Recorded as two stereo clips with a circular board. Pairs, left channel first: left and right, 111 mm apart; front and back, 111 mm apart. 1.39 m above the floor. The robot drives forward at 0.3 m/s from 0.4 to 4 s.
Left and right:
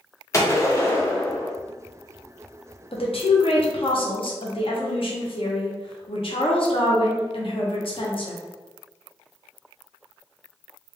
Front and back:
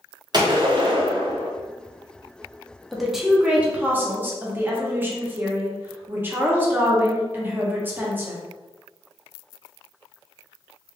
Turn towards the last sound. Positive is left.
turn(degrees=110)